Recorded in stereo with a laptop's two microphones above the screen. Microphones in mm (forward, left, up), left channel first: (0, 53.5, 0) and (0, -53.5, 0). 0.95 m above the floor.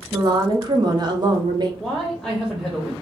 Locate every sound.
0.1 s a woman speaking: 40° right (ahead or behind), 0.7 m
1.8 s a man speaking: centre (ahead or behind), 0.5 m